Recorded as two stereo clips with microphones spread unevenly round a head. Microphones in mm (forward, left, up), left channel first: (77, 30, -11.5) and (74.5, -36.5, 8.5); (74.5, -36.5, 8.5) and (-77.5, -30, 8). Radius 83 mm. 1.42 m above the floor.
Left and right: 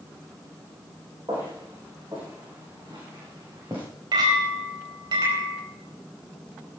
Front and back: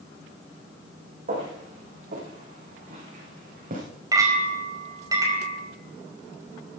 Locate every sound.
1.3 s footsteps: 145° right, 6.5 m; by 3.8 s 150° right, 8 m
4.1 s a clink: 115° right, 5 m